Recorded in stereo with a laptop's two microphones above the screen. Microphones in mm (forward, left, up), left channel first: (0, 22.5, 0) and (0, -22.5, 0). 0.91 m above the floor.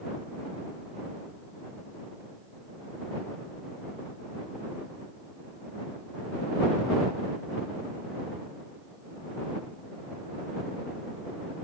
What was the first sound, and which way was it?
Only background noise.